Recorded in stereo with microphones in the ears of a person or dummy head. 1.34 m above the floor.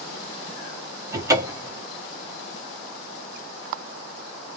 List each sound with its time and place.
1.1 s a cupboard door: 20° right (ahead or behind), 1.0 m